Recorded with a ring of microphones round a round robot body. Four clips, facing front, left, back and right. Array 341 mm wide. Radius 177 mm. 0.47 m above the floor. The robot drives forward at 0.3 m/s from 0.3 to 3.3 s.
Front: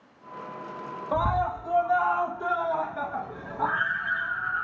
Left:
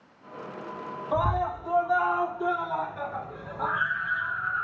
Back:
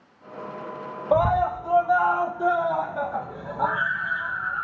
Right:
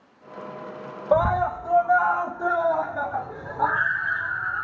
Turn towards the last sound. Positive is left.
turn(degrees=-140)